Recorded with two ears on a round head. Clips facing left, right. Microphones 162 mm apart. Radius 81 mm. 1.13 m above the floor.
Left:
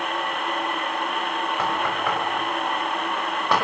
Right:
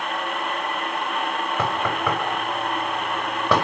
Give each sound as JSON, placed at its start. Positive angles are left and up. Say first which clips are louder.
{"t": 1.6, "sound": "knocking", "louder": "right 2 dB", "side_deg": -75, "distance_m": 5.0}